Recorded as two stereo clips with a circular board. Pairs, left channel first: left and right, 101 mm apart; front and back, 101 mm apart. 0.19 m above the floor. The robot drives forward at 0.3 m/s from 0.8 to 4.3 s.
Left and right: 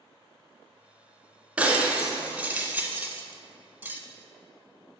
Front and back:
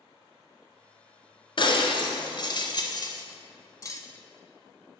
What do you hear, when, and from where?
1.6 s breaking glass: 15° right, 1.5 m; by 4.0 s 30° right, 1.0 m